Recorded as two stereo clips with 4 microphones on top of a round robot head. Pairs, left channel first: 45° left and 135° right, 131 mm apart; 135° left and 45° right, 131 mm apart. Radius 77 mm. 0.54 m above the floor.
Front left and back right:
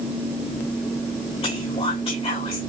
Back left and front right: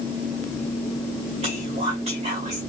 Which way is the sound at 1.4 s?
5° right.